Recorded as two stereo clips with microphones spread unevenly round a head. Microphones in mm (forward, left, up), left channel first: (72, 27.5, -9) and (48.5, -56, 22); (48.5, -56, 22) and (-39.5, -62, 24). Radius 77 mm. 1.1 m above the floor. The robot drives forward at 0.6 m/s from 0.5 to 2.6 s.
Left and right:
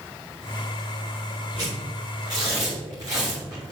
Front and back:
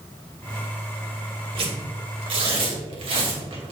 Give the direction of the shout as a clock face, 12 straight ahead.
No shout in this recording.